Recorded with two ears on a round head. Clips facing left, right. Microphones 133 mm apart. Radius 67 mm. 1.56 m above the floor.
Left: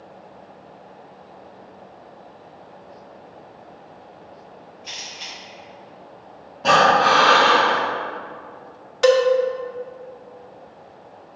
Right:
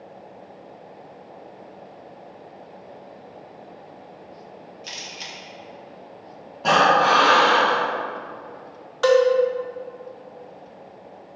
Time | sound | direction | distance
4.8 | a camera shutter | 50° right (ahead or behind) | 1.5 m
6.6 | breathing | centre (ahead or behind) | 1.5 m
9.0 | a cowbell | 20° left (ahead or behind) | 0.6 m